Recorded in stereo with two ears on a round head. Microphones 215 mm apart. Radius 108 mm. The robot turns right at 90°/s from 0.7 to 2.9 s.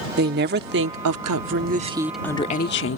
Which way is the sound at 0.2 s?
130° right.